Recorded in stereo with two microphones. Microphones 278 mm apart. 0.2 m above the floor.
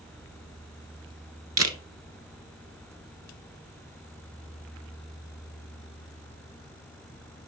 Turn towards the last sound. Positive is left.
turn(degrees=-65)  # may be behind; listen again after turning